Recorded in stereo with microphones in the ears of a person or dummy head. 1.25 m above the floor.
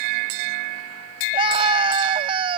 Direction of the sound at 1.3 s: 30° right (ahead or behind).